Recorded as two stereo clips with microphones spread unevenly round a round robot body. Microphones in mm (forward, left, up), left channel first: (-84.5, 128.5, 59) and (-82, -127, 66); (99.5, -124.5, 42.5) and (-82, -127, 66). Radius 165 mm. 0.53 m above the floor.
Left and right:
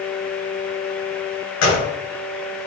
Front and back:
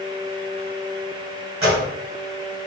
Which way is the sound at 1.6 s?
110° left.